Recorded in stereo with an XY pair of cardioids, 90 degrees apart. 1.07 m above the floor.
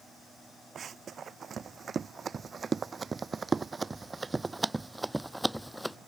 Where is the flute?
I don't hear a flute.